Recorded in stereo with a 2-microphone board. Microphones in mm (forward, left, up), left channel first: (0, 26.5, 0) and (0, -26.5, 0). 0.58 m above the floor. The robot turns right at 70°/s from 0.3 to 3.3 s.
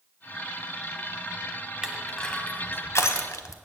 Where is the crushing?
15° right (ahead or behind), 1.0 m; by 3.6 s 80° left, 1.0 m.